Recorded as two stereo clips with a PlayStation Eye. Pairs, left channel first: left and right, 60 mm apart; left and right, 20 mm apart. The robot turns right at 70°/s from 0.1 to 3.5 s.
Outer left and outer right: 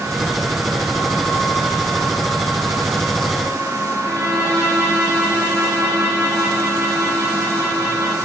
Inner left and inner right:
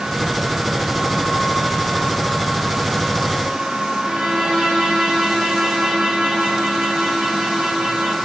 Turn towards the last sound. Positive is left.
turn(degrees=-75)  # may be behind; listen again after turning